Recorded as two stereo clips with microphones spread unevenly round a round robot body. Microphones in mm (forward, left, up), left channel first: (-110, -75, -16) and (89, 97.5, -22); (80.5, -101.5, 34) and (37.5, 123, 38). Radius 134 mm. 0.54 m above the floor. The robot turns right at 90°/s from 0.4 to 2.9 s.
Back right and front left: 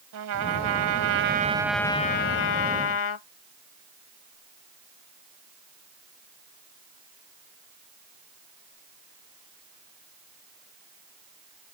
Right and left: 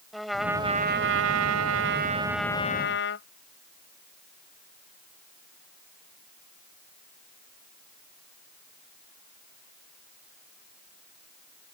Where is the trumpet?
10° left; by 3.3 s 125° right.